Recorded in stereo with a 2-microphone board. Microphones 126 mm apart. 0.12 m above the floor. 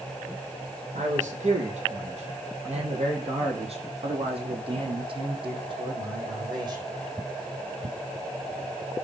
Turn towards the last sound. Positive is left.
turn(degrees=-35)  # may be behind; listen again after turning